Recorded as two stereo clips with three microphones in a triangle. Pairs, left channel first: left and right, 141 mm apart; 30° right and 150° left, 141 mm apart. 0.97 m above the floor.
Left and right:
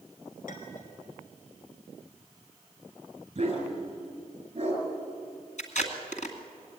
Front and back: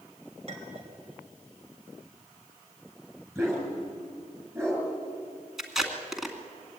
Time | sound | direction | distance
0.5 | a clink | 105° left | 3.5 m
3.4 | a dog barking | 140° right | 5.5 m
5.6 | tape being pulled | 60° left | 2.5 m